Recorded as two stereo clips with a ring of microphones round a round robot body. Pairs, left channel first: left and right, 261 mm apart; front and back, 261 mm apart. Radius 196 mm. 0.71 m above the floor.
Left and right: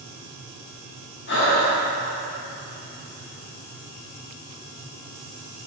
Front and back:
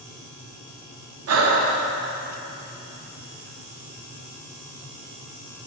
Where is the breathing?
145° left, 0.8 m.